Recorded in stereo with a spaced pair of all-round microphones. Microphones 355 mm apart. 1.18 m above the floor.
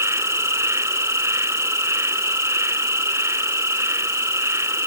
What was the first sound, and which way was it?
An insect, 10° right (ahead or behind).